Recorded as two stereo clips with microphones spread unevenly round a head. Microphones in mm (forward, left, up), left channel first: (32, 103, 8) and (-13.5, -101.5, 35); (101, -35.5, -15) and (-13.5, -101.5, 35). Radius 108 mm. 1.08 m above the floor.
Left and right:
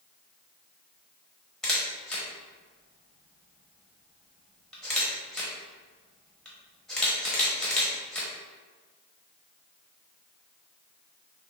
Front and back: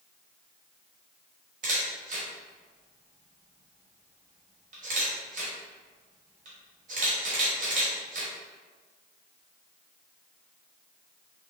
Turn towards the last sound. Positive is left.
turn(degrees=165)